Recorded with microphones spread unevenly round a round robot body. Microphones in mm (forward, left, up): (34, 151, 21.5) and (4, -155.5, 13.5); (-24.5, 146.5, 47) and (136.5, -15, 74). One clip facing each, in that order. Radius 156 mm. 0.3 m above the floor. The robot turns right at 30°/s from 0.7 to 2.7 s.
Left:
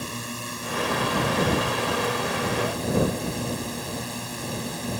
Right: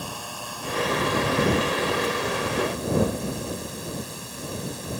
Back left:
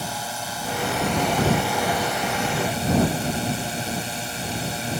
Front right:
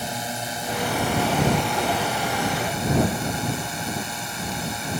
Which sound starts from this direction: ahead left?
A drone, at 0.0 s.